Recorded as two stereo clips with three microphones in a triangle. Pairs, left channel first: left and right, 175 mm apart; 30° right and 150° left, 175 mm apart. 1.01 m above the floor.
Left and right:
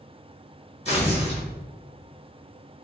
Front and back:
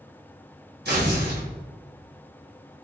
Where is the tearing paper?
140° left, 1.2 m.